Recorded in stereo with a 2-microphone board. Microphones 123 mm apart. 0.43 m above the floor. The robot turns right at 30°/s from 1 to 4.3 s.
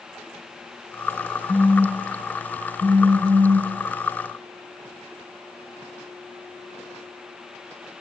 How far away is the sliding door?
I don't hear a sliding door.